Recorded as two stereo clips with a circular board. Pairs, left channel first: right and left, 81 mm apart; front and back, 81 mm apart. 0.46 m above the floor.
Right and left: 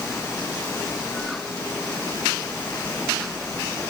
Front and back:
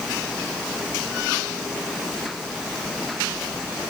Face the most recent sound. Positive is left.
No sound to turn to.